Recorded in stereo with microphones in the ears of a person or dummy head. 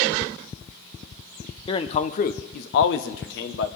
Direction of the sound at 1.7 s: 30° left (ahead or behind).